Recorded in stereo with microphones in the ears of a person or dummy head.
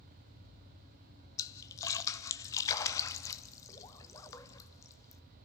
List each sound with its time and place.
1.4 s a splash: 15° left (ahead or behind), 0.8 m